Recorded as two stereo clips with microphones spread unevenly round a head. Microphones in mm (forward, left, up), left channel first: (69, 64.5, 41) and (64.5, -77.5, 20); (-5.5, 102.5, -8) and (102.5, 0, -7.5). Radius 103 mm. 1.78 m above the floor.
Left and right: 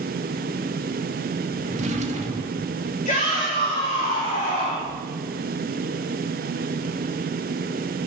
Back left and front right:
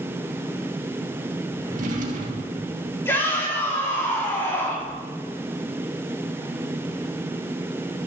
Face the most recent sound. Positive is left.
turn(degrees=70)